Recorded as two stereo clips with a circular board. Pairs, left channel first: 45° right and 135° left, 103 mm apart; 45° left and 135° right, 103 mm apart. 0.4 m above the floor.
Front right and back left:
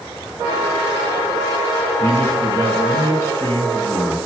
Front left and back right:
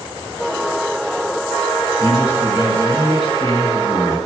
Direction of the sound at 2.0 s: 20° left.